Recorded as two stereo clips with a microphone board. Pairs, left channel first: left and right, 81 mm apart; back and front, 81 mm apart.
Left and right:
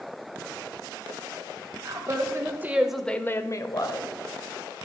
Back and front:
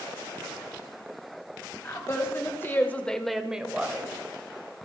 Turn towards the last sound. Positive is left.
turn(degrees=70)